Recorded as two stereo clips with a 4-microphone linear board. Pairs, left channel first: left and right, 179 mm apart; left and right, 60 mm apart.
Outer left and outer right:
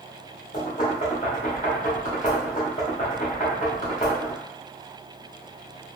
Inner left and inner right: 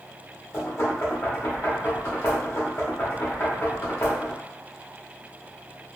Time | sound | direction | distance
0.5 | knocking | 45° left (ahead or behind) | 1.2 m